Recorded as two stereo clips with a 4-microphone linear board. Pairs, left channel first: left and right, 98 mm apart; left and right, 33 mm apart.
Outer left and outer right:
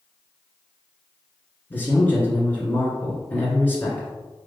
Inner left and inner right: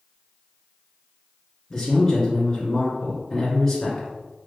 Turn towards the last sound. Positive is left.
turn(degrees=20)  # may be behind; listen again after turning